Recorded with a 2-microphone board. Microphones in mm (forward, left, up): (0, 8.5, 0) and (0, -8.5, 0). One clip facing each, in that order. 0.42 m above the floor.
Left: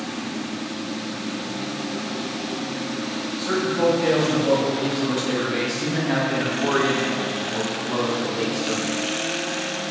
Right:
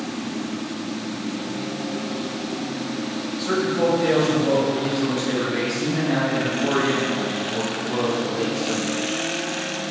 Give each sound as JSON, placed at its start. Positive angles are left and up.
{"t": 3.4, "sound": "a man speaking", "side_deg": 5, "distance_m": 2.0}